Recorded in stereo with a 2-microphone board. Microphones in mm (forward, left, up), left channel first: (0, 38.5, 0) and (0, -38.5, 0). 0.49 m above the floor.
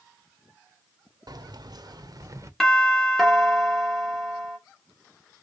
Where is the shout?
No shout in this recording.